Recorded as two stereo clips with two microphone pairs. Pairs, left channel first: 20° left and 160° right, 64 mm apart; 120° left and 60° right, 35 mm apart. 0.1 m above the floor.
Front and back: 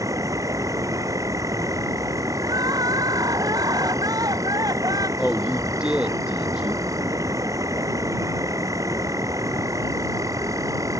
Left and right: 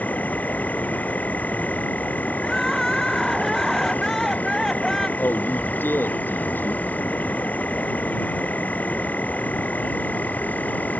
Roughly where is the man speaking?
Behind left.